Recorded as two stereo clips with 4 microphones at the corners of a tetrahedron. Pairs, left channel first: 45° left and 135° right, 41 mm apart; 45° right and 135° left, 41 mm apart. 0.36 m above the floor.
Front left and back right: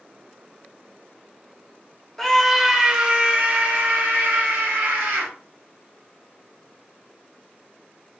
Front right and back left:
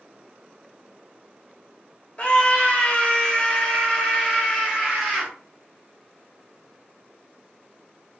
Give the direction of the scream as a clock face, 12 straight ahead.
1 o'clock.